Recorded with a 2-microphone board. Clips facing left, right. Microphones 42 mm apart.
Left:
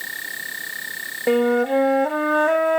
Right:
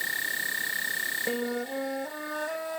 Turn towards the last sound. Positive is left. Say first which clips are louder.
# left 13 dB
turn(degrees=60)  # may be behind; listen again after turning